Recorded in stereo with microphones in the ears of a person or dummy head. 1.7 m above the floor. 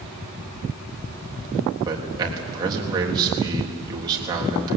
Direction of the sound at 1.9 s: 20° right (ahead or behind).